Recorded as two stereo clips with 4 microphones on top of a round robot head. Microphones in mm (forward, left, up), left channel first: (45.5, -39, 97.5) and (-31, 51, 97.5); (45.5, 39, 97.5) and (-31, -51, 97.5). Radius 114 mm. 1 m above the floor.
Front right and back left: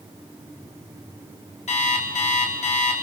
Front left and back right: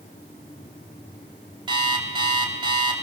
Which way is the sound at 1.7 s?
80° right.